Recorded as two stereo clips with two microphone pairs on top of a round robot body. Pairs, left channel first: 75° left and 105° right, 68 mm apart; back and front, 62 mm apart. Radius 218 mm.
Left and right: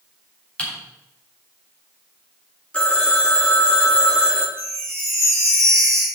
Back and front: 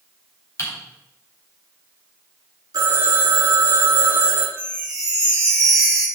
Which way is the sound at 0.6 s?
140° left.